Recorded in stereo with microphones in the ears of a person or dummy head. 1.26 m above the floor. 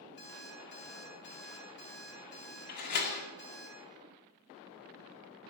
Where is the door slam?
45° left (ahead or behind), 2 m.